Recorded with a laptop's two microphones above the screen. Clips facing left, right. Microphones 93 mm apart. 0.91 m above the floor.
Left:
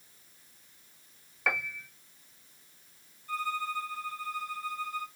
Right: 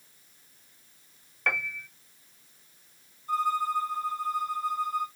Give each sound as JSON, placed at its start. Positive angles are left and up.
{"t": 1.5, "sound": "a piano", "side_deg": 5, "distance_m": 0.5}
{"t": 3.3, "sound": "a violin", "side_deg": -40, "distance_m": 1.6}